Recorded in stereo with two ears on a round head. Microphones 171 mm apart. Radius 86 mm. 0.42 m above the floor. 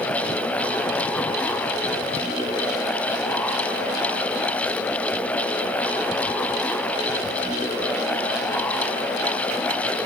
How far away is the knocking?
I don't hear knocking.